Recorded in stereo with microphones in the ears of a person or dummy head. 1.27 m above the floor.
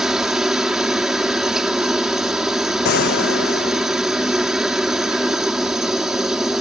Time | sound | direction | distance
0.0 | a helicopter | centre (ahead or behind) | ?
2.9 | a gunshot | 55° left (ahead or behind) | ?